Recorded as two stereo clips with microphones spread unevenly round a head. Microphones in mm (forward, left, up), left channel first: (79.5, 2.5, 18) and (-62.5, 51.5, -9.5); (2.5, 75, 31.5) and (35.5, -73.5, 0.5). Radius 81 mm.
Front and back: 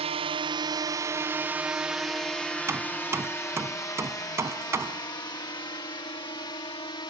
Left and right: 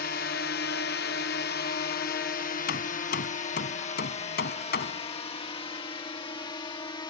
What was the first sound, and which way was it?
A drone, 130° left.